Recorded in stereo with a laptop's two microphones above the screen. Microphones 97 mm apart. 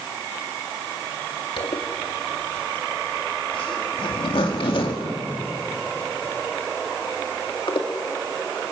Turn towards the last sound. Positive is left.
turn(degrees=65)  # may be behind; listen again after turning